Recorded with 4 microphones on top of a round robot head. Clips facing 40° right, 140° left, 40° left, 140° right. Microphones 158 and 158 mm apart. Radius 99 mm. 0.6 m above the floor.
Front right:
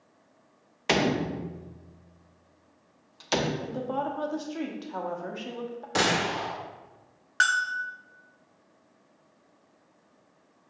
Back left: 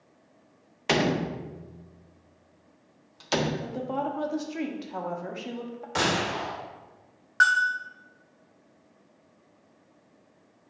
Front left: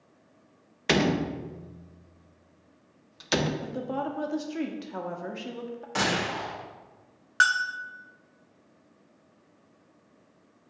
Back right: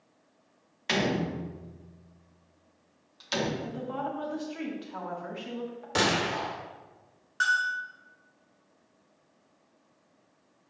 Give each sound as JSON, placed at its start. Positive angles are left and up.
{"t": 0.9, "sound": "a door slam", "azimuth_deg": 50, "distance_m": 0.7}
{"t": 3.6, "sound": "a woman speaking", "azimuth_deg": 65, "distance_m": 1.1}
{"t": 6.0, "sound": "a gunshot", "azimuth_deg": -90, "distance_m": 2.0}
{"t": 7.4, "sound": "a bell", "azimuth_deg": 25, "distance_m": 0.6}